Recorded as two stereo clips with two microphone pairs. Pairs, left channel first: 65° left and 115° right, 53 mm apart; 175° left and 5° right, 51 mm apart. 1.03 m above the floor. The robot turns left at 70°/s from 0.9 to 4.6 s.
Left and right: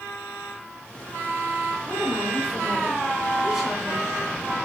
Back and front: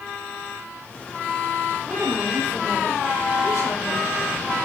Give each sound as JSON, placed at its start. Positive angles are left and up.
{"t": 1.9, "sound": "a woman speaking", "azimuth_deg": -80, "distance_m": 4.5}